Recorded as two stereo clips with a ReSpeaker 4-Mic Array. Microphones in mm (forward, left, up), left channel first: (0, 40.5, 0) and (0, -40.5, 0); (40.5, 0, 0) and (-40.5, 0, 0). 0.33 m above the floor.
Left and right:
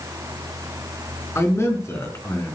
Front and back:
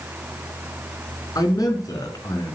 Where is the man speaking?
35° left, 4 m.